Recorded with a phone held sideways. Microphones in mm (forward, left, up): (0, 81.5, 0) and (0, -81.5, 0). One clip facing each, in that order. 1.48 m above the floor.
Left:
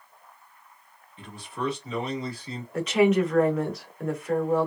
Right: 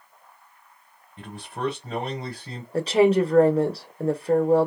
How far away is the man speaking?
About 1.2 m.